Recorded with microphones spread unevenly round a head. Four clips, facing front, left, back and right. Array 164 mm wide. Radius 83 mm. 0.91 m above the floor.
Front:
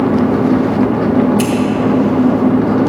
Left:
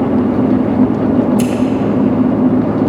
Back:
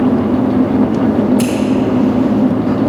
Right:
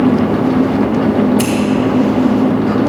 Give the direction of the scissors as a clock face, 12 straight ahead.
8 o'clock.